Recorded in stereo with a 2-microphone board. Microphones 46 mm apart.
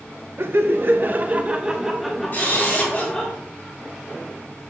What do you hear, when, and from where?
0.4 s laughter: 55° right (ahead or behind), 1.0 m; by 3.3 s 20° left (ahead or behind), 1.7 m
2.3 s a camera shutter: 40° left (ahead or behind), 4 m